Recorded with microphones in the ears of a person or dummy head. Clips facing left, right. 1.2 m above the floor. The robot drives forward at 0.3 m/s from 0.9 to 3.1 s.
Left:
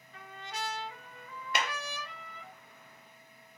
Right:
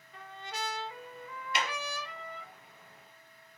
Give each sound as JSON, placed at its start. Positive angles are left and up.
{"t": 0.1, "sound": "a trumpet", "side_deg": -75, "distance_m": 0.9}
{"t": 1.5, "sound": "a clap", "side_deg": 45, "distance_m": 0.7}